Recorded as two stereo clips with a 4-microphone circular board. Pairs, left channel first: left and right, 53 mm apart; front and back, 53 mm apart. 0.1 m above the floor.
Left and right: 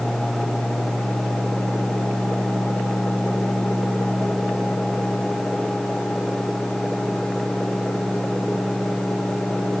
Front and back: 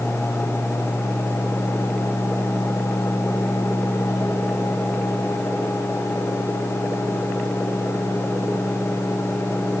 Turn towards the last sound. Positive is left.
No sound to turn to.